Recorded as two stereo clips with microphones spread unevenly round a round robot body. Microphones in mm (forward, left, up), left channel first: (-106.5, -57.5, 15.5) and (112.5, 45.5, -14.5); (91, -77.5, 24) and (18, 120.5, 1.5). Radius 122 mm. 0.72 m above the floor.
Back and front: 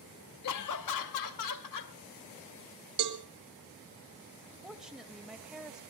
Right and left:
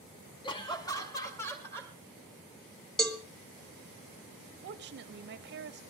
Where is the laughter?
140° right, 0.8 m; by 1.9 s 150° right, 2.5 m.